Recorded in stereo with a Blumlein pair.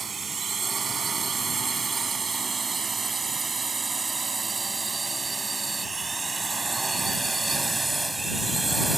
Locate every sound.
0.0 s a drone: 15° right; by 9.0 s 5° right